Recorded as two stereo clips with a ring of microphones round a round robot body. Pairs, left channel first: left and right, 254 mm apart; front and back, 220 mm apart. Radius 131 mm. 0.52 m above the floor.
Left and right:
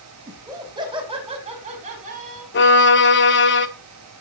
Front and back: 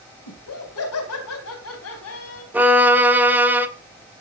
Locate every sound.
0.3 s laughter: 15° right, 3.5 m; by 2.4 s 30° right, 3.5 m
2.5 s a violin: 100° left, 1.5 m